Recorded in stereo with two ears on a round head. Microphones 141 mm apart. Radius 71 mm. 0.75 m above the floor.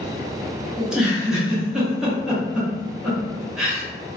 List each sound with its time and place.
0.8 s a giggle: 5° right (ahead or behind), 0.8 m